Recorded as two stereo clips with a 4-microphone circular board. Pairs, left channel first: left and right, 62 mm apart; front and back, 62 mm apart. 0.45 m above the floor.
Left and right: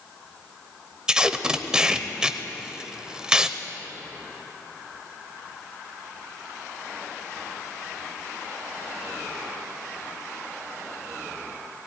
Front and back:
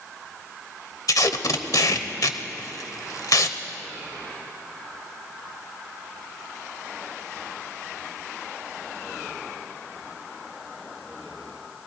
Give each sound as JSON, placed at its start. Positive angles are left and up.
{"t": 1.1, "sound": "tape being pulled", "azimuth_deg": -10, "distance_m": 0.8}